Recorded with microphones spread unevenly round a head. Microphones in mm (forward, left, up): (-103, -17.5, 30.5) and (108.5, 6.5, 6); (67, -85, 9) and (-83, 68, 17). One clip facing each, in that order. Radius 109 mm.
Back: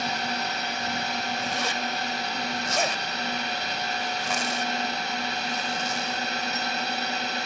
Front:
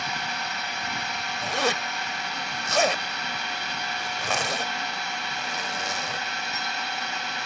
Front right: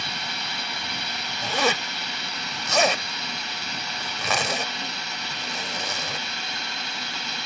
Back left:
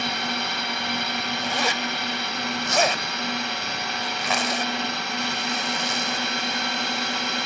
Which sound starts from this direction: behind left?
A drone, at 0.0 s.